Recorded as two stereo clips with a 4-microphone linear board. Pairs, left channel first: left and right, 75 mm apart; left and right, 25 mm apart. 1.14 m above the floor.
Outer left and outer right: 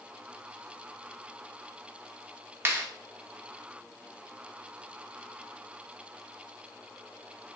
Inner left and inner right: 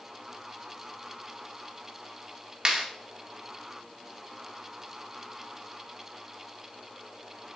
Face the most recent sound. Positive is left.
turn(degrees=-30)  # may be behind; listen again after turning